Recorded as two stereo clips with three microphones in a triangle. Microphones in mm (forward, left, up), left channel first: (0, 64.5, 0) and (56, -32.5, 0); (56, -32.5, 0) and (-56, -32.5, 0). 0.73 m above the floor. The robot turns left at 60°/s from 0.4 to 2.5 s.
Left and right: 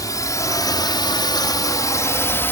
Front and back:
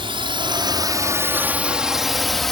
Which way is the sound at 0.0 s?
170° left.